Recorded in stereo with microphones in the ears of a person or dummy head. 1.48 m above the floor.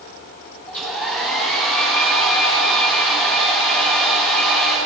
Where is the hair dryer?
10° left (ahead or behind), 4 m.